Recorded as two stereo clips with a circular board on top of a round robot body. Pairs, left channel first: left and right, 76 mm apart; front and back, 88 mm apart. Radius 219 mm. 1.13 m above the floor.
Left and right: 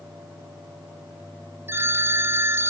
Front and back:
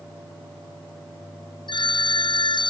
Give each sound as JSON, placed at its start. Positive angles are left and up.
{"t": 1.7, "sound": "a phone ringing", "azimuth_deg": -30}